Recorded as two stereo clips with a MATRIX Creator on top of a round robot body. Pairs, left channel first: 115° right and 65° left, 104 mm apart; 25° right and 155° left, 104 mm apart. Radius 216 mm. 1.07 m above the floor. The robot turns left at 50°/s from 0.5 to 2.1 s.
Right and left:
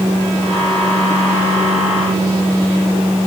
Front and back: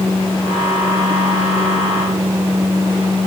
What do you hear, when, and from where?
Only background noise.